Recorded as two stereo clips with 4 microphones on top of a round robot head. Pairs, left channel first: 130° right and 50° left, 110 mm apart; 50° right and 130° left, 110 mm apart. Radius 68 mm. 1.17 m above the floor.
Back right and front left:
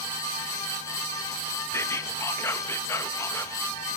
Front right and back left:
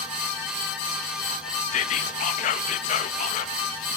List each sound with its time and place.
1.7 s whispering: 65° right, 1.6 m